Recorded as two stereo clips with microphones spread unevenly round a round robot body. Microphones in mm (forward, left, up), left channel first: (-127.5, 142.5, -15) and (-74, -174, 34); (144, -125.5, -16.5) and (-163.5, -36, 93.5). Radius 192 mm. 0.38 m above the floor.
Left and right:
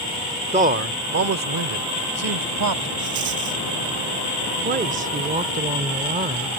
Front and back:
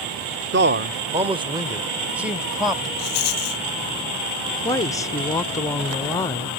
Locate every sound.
0.5 s a man speaking: 145° right; by 2.9 s 95° right
3.0 s a rattle: 15° right
4.6 s a woman speaking: 20° right